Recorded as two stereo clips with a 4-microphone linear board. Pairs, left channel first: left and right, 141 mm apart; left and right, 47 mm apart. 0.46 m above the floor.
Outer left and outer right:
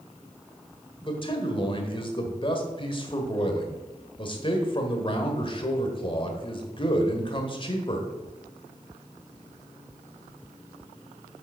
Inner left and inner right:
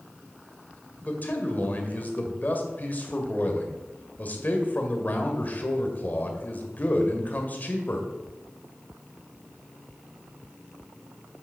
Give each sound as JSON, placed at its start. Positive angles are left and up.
{"t": 1.0, "sound": "a man speaking", "side_deg": 40, "distance_m": 1.6}